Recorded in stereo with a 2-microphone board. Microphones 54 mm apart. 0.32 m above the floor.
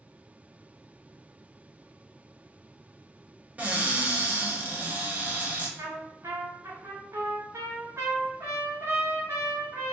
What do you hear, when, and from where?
3.6 s a cupboard door: 30° right (ahead or behind), 0.7 m
5.8 s a trumpet: 75° right (ahead or behind), 0.9 m